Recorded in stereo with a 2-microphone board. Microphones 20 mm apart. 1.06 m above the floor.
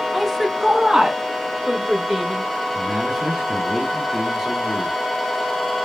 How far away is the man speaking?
About 1.6 m.